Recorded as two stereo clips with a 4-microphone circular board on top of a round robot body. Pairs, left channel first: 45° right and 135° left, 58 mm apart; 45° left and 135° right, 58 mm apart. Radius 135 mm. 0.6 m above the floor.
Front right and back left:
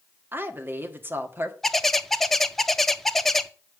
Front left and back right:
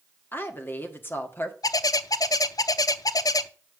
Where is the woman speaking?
90° left, 1.9 m.